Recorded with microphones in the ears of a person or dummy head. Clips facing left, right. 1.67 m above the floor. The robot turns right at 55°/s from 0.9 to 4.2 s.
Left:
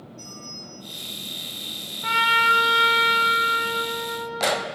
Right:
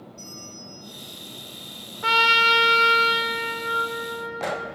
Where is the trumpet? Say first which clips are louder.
Right 2 dB; 70° right, 0.6 m; by 4.7 s 50° left, 0.6 m.